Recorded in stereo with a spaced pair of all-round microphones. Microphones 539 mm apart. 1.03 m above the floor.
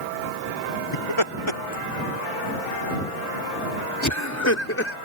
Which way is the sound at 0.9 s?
65° left (ahead or behind).